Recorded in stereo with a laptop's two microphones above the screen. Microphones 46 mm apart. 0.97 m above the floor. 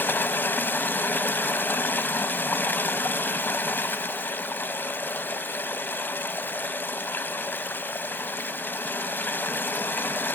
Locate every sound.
0.0 s running water: 45° left (ahead or behind), 0.9 m